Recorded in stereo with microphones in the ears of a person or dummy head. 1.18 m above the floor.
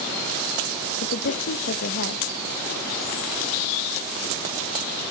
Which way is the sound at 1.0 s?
55° left (ahead or behind).